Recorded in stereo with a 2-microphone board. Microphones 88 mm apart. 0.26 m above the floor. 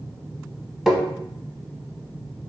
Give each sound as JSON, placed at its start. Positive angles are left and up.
{"t": 0.9, "sound": "tapping", "side_deg": -5, "distance_m": 0.6}